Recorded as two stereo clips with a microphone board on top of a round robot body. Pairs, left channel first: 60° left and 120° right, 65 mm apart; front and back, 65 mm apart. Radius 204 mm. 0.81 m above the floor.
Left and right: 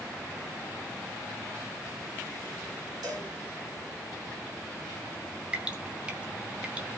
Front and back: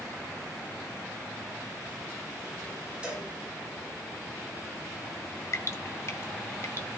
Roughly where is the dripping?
Ahead right.